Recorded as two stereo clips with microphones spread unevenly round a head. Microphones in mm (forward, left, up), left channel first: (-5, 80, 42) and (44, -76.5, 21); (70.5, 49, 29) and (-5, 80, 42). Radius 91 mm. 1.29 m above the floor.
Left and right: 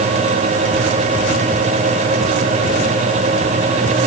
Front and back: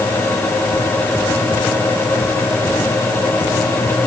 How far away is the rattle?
No rattle in this recording.